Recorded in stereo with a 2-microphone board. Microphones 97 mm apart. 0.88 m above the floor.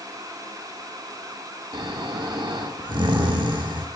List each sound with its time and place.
1.7 s snoring: 55° right (ahead or behind), 1.0 m